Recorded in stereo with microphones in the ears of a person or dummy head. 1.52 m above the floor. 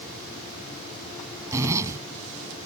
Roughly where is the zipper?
Centre.